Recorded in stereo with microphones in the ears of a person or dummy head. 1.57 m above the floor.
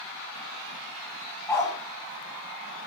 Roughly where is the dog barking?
Centre.